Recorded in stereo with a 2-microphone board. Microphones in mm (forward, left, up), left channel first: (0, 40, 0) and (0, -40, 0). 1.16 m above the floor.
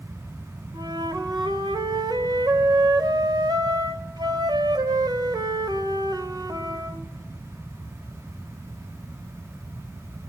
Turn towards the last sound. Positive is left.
turn(degrees=-60)  # may be behind; listen again after turning